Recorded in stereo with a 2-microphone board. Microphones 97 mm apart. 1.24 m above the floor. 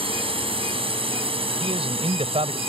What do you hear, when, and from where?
0.0 s a drone: 70° right (ahead or behind); by 2.7 s 75° right (ahead or behind)
1.6 s a man speaking: 80° right